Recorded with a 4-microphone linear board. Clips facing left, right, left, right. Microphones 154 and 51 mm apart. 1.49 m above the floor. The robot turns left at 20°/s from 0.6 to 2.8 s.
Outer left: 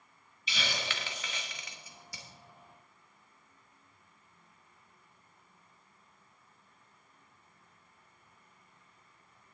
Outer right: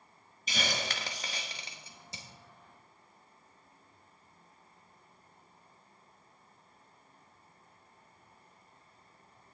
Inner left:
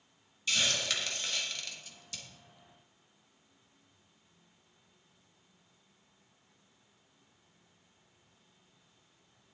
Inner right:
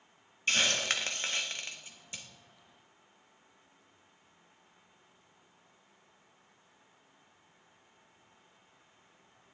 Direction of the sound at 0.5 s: 45° right (ahead or behind).